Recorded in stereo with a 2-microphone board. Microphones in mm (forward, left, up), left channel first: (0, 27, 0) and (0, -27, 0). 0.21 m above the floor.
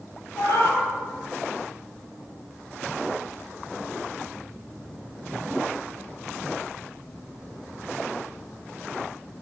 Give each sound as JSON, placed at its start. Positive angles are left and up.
{"t": 0.4, "sound": "a cat meowing", "side_deg": 70, "distance_m": 1.6}